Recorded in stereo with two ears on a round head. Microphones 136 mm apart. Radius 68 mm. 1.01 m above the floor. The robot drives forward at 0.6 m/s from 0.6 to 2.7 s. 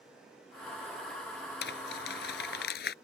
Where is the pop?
No pop in this recording.